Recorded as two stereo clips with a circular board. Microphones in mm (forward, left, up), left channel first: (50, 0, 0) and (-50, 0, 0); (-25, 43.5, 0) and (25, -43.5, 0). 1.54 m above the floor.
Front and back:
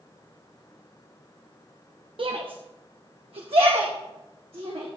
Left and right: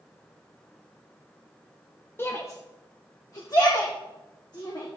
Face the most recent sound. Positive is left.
turn(degrees=165)